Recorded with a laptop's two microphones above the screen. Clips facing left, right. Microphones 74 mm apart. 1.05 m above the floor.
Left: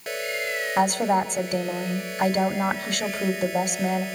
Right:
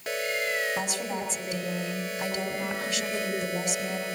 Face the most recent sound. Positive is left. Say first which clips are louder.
# left 10 dB
turn(degrees=65)  # may be behind; listen again after turning